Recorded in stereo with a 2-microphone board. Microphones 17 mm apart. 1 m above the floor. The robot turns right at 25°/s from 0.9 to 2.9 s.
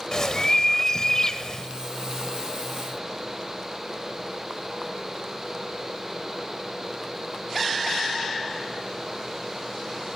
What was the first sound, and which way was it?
A bird, 35° left (ahead or behind).